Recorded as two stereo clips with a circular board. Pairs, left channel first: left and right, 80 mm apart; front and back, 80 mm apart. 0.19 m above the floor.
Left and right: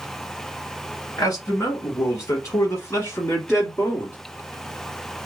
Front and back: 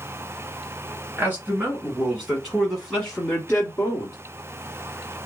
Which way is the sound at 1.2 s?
125° left.